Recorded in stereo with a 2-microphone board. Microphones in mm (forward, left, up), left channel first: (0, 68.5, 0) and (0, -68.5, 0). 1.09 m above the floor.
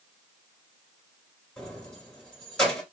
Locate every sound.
1.6 s keys jangling: 5° left (ahead or behind), 2.5 m